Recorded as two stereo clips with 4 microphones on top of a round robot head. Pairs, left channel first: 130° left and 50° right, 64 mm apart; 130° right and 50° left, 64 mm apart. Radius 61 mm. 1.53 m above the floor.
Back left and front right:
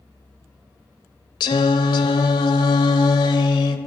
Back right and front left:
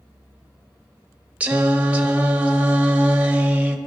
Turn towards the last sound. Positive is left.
turn(degrees=120)